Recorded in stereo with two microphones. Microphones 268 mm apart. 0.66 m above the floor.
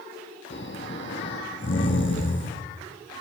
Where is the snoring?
45° left (ahead or behind), 3 m.